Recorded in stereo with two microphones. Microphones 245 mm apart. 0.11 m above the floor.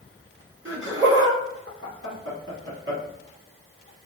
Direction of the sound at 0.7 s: 55° right (ahead or behind).